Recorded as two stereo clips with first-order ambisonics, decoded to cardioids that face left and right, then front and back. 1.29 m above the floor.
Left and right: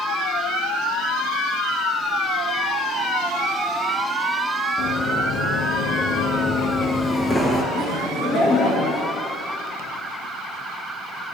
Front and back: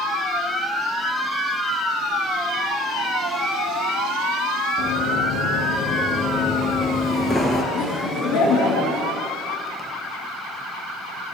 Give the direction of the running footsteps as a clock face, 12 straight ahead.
10 o'clock.